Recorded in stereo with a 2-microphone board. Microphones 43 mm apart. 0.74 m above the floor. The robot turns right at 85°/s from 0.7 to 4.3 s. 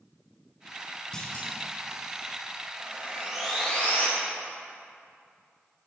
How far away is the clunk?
About 2 m.